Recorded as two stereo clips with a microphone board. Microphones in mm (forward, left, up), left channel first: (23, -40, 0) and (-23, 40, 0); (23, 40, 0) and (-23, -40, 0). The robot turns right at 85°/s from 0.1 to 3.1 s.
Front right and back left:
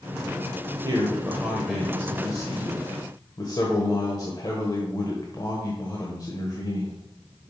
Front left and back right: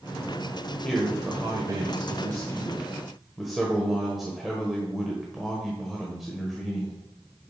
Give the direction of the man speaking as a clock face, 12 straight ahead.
7 o'clock.